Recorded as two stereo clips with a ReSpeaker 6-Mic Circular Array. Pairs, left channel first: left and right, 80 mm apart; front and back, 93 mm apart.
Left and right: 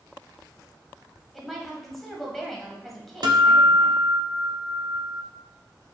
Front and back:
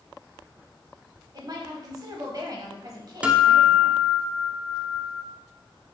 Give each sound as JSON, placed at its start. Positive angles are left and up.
{"t": 1.3, "sound": "a woman speaking", "azimuth_deg": 175, "distance_m": 1.2}
{"t": 3.2, "sound": "a guitar", "azimuth_deg": -105, "distance_m": 0.6}